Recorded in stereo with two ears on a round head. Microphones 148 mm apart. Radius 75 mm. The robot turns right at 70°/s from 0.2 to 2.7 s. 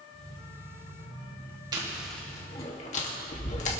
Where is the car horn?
No car horn in this recording.